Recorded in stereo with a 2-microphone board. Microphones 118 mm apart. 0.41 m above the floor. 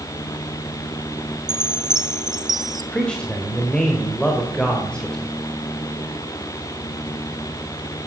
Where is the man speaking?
10° left (ahead or behind), 1.9 m.